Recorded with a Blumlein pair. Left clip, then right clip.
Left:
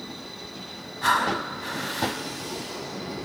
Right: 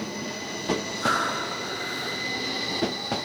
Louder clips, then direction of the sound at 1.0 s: Left 4 dB; 55° left.